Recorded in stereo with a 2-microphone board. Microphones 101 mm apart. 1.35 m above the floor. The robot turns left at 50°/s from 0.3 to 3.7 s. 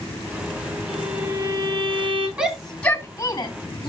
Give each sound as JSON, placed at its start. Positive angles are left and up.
{"t": 0.9, "sound": "a violin", "azimuth_deg": 0, "distance_m": 6.5}
{"t": 2.4, "sound": "a shout", "side_deg": -10, "distance_m": 3.5}